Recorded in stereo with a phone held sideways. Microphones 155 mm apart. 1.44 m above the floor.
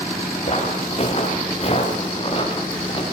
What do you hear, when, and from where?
0.5 s footsteps: 45° left (ahead or behind), 9.5 m; by 3.0 s 35° left (ahead or behind), 9.5 m